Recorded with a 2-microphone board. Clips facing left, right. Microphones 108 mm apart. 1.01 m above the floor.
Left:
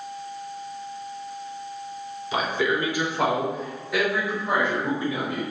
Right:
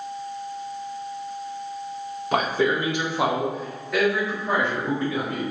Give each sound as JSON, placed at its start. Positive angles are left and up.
{"t": 2.3, "sound": "a man speaking", "side_deg": -55, "distance_m": 0.8}